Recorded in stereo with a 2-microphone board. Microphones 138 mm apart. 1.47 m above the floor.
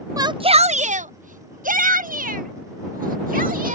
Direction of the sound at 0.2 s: 25° right (ahead or behind).